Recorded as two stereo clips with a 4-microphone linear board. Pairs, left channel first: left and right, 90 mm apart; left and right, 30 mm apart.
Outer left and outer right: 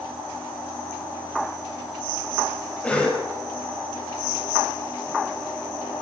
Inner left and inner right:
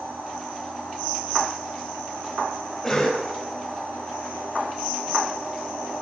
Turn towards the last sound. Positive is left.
turn(degrees=10)  # may be behind; listen again after turning